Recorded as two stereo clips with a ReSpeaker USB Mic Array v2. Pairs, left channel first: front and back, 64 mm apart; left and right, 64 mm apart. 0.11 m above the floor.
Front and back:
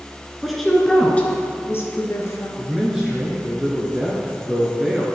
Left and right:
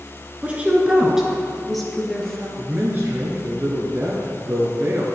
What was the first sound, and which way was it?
A woman speaking, 100° right.